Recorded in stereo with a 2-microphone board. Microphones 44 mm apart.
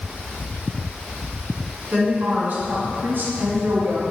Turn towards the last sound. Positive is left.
turn(degrees=-50)  # may be behind; listen again after turning